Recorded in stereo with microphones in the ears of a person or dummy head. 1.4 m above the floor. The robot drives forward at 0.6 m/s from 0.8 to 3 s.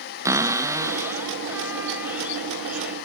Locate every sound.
0.2 s a cupboard door: 15° right (ahead or behind), 0.8 m; by 3.0 s 5° right (ahead or behind), 2 m